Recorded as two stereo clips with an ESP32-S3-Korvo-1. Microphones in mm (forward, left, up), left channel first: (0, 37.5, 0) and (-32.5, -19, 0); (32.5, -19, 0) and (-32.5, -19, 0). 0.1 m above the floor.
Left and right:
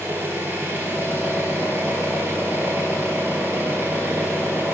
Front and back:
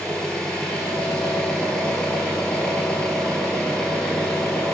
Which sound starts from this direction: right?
An engine running, at 0.0 s.